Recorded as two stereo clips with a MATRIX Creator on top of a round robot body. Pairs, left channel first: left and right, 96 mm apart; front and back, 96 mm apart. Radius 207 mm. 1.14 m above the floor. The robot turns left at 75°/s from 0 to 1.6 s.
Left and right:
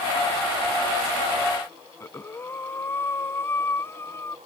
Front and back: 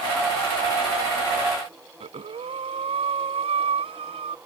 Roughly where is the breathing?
Behind.